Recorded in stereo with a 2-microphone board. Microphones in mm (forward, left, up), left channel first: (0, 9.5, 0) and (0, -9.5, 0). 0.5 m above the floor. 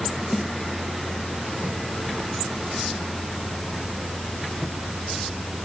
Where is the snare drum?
30° right (ahead or behind), 1.2 m.